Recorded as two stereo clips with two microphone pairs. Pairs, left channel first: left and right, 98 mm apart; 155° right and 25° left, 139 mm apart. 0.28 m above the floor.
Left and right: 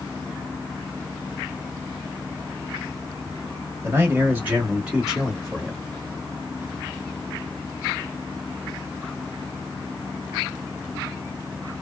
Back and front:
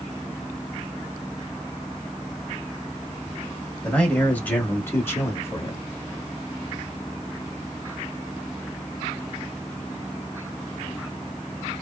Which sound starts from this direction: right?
A man speaking, at 3.8 s.